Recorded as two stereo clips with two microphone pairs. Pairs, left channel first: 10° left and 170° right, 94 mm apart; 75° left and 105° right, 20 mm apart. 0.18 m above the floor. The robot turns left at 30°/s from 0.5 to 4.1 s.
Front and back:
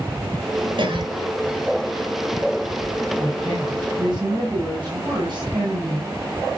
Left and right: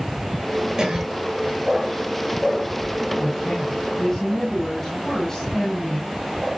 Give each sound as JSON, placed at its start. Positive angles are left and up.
{"t": 0.8, "sound": "a cough", "azimuth_deg": -150, "distance_m": 4.0}
{"t": 3.2, "sound": "a woman speaking", "azimuth_deg": 180, "distance_m": 7.5}